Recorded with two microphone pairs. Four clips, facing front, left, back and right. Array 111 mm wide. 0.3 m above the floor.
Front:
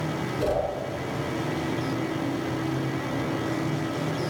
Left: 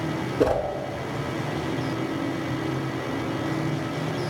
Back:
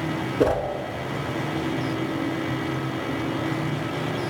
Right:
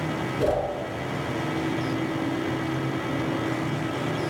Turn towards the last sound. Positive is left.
turn(degrees=145)